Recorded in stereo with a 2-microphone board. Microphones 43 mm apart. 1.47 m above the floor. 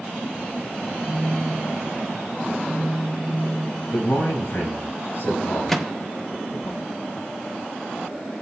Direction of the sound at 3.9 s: 75° left (ahead or behind).